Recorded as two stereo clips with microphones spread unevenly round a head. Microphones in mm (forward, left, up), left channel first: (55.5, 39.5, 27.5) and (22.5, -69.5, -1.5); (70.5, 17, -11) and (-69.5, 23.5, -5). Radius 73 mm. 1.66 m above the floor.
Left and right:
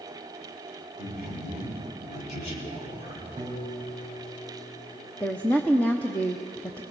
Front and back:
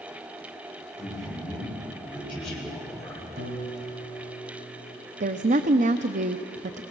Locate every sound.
1.0 s a man speaking: 85° left, 7 m
3.4 s a piano: 175° left, 4 m
5.2 s a woman speaking: 150° left, 0.8 m